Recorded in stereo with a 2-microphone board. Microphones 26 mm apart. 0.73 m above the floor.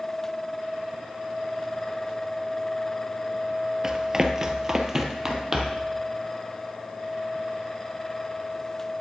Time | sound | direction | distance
3.8 | running footsteps | 20° right (ahead or behind) | 0.7 m